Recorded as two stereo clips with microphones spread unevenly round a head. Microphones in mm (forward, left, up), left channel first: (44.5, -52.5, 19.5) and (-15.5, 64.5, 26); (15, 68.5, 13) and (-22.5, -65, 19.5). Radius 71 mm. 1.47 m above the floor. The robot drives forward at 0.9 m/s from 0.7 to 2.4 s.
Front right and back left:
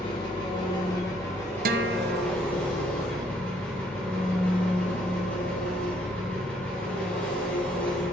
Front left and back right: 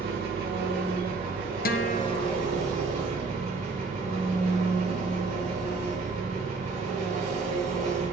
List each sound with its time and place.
0.0 s an engine running: 125° right, 3 m; by 8.1 s 140° right, 4 m
1.6 s a guitar: 100° left, 0.7 m; by 2.4 s 140° left, 1.0 m